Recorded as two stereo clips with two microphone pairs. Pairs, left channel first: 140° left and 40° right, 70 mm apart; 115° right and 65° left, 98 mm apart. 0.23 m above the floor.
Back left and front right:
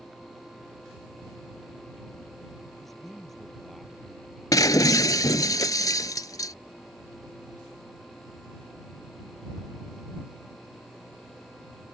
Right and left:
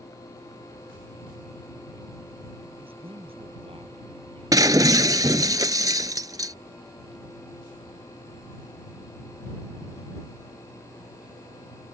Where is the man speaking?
50° left; by 5.5 s 55° left.